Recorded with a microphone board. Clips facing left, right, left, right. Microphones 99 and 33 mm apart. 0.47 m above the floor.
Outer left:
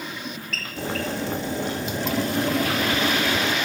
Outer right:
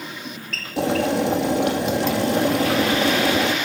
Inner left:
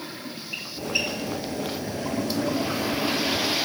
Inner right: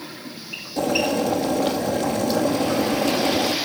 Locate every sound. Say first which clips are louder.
0.8 s boiling: outer right 8 dB, inner right 8 dB; 85° right, 2.5 m